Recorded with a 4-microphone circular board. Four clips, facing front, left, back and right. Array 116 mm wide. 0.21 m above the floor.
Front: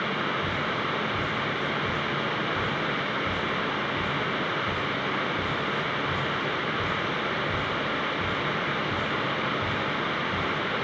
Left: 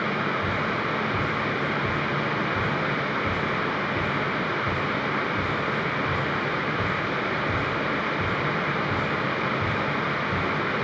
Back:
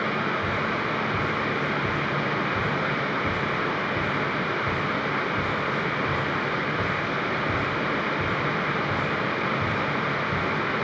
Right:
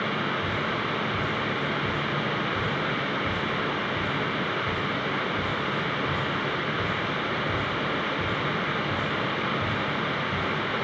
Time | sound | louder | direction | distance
0.4 | dripping | left 2 dB, back 2 dB | 155° left | 4 m